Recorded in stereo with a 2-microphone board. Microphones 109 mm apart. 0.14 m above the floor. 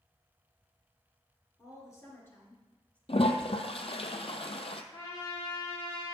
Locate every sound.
1.6 s a woman speaking: 30° left (ahead or behind), 2.5 m; by 3.0 s 10° left (ahead or behind), 2.5 m
3.1 s a toilet flushing: 65° left (ahead or behind), 0.7 m
4.9 s a trumpet: 35° left (ahead or behind), 2 m